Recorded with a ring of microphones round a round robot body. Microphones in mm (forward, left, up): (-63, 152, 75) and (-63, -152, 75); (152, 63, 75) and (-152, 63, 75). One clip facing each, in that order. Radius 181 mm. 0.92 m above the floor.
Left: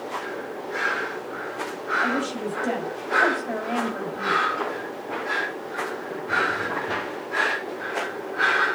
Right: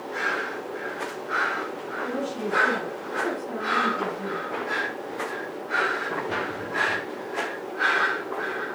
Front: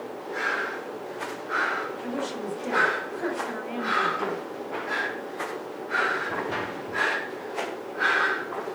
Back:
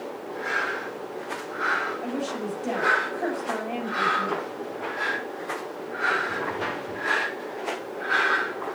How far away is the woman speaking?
About 7 m.